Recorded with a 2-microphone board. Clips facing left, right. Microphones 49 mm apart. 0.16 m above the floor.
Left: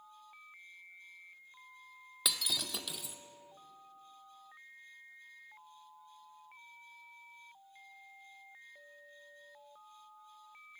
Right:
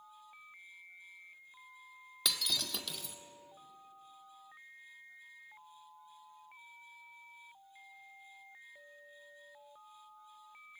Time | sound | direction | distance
2.2 | breaking glass | 5° left (ahead or behind) | 0.5 m